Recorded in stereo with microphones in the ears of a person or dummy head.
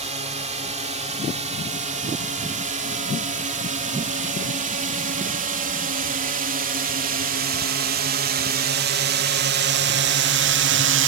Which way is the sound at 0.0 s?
35° right (ahead or behind).